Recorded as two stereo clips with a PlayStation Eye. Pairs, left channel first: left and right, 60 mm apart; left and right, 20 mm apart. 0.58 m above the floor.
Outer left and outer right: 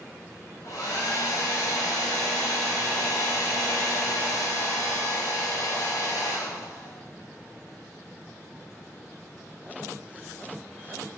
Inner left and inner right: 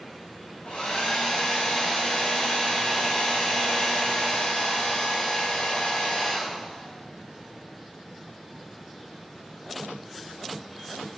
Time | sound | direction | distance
0.6 | a hair dryer | 80° left | 2.5 m